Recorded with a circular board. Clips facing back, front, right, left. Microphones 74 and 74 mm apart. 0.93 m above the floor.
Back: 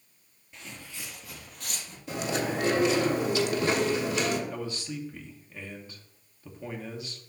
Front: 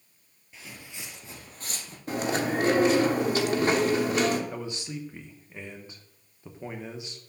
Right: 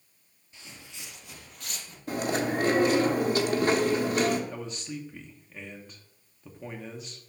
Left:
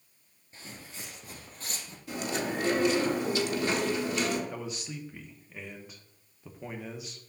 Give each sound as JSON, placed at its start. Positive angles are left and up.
{"t": 0.5, "sound": "footsteps", "azimuth_deg": 85, "distance_m": 1.1}
{"t": 2.1, "sound": "chewing", "azimuth_deg": -45, "distance_m": 1.1}
{"t": 4.5, "sound": "a man speaking", "azimuth_deg": 15, "distance_m": 0.9}